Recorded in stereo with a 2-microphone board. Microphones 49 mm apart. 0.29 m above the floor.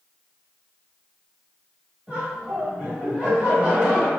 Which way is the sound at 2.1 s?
20° right (ahead or behind).